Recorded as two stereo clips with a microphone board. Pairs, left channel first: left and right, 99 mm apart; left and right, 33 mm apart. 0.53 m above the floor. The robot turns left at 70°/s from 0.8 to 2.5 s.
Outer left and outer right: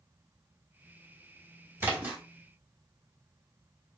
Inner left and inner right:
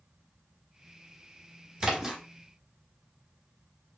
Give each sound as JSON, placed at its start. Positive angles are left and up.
{"t": 1.8, "sound": "a splash", "side_deg": -30, "distance_m": 1.3}